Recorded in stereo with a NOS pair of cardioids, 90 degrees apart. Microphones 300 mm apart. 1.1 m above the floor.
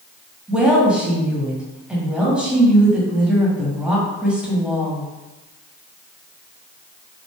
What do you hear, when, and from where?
0.5 s a woman speaking: 5° right, 1.5 m